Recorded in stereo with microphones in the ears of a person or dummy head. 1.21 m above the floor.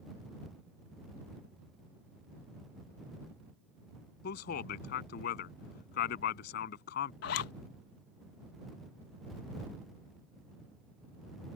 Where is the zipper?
65° left (ahead or behind).